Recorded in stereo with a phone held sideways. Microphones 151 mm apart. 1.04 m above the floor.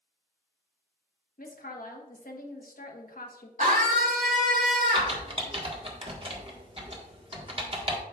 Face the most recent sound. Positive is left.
turn(degrees=-40)  # may be behind; listen again after turning